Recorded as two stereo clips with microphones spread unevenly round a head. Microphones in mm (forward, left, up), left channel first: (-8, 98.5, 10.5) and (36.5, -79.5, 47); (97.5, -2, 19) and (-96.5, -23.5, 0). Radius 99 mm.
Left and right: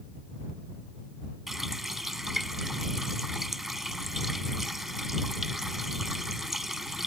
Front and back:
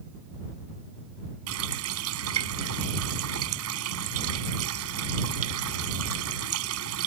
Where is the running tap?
165° right.